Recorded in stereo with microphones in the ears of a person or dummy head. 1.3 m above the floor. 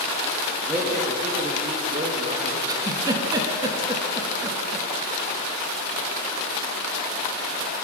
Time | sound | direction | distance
0.7 | a man speaking | 15° right (ahead or behind) | 2.5 m
2.7 | a giggle | 20° right (ahead or behind) | 2.0 m